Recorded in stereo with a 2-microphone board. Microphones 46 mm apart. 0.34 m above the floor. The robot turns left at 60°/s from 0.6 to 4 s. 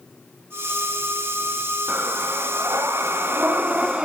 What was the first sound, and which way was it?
Breathing, 35° right.